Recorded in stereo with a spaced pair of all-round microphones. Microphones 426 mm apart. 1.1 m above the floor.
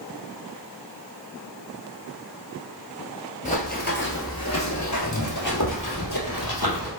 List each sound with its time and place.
3.5 s running footsteps: 15° left (ahead or behind), 1.4 m; by 6.9 s 55° left (ahead or behind), 2 m